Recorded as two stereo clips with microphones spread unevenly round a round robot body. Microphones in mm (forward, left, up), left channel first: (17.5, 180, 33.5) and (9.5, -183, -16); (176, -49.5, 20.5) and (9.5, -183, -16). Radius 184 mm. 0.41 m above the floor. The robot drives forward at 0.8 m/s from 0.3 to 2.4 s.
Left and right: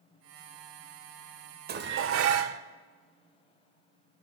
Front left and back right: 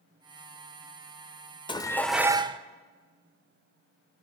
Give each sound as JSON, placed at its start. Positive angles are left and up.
{"t": 1.7, "sound": "dishes clattering", "azimuth_deg": -35, "distance_m": 0.8}